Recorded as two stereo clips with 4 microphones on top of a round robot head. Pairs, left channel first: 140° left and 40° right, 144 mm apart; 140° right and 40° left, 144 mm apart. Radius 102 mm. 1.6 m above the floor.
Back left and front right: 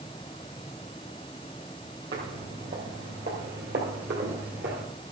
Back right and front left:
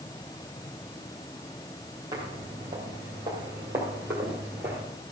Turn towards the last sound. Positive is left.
turn(degrees=-40)